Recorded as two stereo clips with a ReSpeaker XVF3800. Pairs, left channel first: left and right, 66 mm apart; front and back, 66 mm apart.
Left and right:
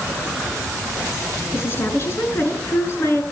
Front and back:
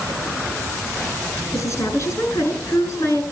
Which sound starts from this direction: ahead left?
A woman speaking, at 1.5 s.